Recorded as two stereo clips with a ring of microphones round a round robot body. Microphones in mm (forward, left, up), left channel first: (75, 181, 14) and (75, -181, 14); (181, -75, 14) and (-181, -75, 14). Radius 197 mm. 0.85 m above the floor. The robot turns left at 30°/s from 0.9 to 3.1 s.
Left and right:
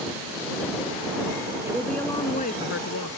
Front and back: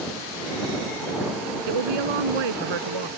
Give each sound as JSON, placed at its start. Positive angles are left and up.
{"t": 1.7, "sound": "a woman speaking", "azimuth_deg": -175}